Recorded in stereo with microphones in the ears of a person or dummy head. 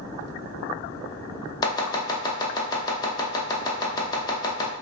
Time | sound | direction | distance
1.6 | chopping | 20° left (ahead or behind) | 0.6 m